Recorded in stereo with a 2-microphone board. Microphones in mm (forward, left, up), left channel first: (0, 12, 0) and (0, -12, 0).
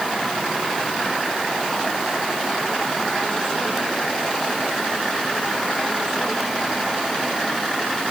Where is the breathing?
No breathing in this recording.